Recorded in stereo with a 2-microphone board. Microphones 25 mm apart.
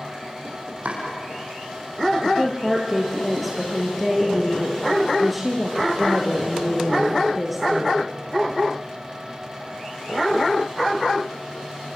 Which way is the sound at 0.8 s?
65° right (ahead or behind).